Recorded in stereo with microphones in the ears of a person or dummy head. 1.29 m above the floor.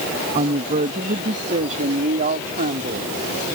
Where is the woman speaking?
35° right (ahead or behind); by 3.1 s 45° right (ahead or behind).